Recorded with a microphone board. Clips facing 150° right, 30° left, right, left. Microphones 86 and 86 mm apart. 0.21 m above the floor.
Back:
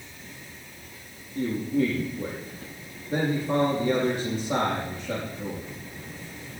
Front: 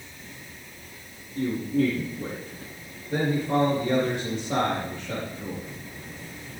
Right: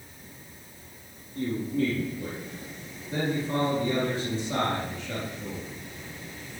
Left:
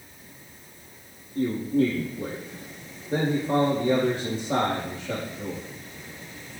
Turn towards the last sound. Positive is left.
turn(degrees=135)